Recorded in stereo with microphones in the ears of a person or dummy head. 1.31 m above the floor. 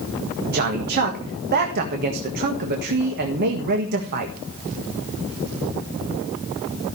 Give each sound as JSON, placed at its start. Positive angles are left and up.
{"t": 0.5, "sound": "a man speaking", "side_deg": -50, "distance_m": 1.8}